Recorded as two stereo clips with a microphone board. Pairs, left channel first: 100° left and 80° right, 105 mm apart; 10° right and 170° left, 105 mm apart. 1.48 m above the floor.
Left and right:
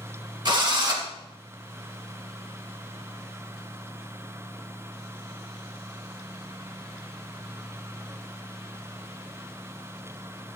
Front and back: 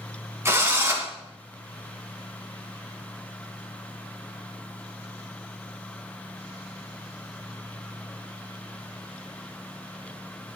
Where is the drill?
125° right, 2.5 m.